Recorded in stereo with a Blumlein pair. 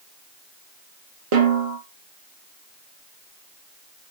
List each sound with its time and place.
1.3 s a snare drum: 45° right, 1.8 m